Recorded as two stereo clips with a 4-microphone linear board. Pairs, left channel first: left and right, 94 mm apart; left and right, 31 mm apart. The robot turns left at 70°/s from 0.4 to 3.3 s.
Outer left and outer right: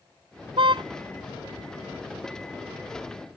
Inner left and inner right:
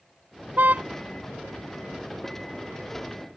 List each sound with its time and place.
0.6 s a car horn: 75° right (ahead or behind); by 0.8 s 55° right (ahead or behind)